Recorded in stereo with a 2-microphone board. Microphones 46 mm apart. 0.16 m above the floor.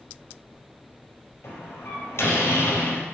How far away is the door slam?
About 3.5 m.